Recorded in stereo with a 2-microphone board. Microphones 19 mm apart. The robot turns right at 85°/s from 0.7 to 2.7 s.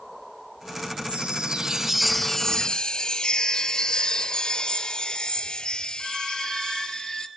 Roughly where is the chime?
Right.